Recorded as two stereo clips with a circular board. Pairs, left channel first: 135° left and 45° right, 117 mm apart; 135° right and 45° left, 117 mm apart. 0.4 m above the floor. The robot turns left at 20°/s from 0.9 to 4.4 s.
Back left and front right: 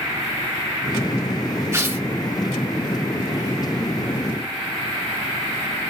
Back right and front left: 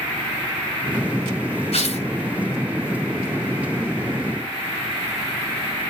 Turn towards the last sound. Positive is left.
turn(degrees=-170)